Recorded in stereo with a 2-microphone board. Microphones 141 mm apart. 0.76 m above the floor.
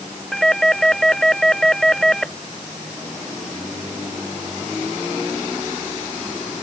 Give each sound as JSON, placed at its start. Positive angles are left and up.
{"t": 0.3, "sound": "a doorbell", "side_deg": 5}